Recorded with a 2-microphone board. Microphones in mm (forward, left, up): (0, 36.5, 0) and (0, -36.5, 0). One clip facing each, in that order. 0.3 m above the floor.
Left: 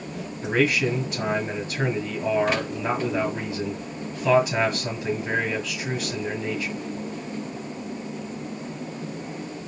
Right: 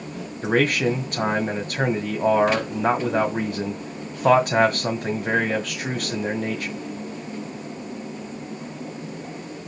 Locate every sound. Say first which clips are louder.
0.4 s a man speaking: right 2 dB; 55° right (ahead or behind), 1.7 m